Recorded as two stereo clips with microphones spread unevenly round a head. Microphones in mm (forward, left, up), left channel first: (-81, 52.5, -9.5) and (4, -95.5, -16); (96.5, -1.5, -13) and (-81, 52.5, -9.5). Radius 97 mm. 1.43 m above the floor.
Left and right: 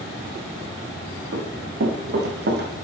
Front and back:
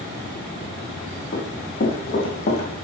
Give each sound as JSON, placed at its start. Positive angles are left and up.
{"t": 1.3, "sound": "running footsteps", "azimuth_deg": -60, "distance_m": 3.5}